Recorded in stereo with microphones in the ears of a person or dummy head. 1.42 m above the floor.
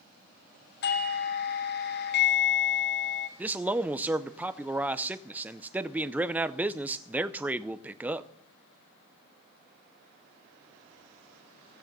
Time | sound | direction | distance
0.8 | a doorbell | 45° left (ahead or behind) | 1.0 m
3.4 | a man speaking | 10° right (ahead or behind) | 0.6 m